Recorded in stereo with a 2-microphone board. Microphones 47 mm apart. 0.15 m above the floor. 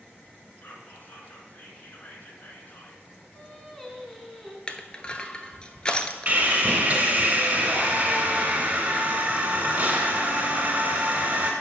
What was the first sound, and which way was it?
Whispering, 45° left (ahead or behind).